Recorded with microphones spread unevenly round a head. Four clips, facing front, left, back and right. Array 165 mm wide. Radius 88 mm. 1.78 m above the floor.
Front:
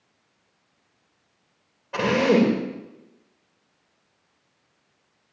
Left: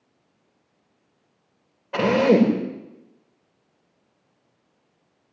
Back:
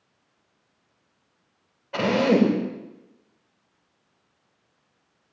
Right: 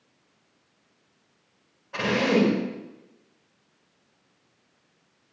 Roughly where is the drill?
Left.